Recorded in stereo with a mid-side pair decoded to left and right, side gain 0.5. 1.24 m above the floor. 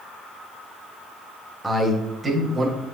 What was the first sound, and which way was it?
A man speaking, 10° right.